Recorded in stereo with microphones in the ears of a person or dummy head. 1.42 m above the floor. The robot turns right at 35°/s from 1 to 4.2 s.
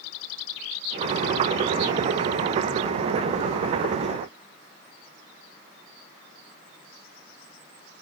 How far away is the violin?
I don't hear a violin.